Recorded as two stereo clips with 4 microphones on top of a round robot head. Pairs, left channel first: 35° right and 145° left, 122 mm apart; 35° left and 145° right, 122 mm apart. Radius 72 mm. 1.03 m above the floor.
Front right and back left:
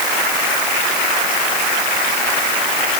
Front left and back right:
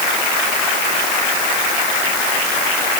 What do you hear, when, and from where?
Only background noise.